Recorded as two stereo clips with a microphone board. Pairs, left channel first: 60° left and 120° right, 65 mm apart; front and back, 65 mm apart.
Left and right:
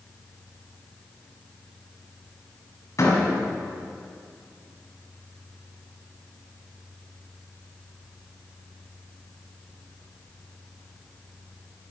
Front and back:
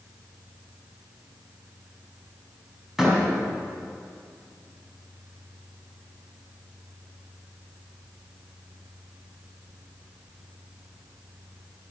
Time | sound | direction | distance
3.0 | a door slam | 95° left | 4 m